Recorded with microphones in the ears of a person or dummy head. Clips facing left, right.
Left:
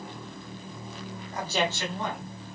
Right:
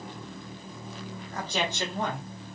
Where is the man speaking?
20° left (ahead or behind), 1.0 m; by 2.3 s 55° right (ahead or behind), 1.1 m.